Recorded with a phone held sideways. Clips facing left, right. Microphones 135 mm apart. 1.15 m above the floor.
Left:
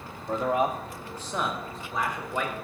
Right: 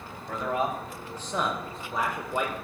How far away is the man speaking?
About 0.8 m.